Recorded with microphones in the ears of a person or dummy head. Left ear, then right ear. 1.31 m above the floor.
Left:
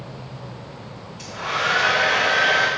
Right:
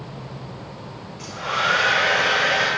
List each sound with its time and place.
1.2 s a hair dryer: 25° left (ahead or behind), 3 m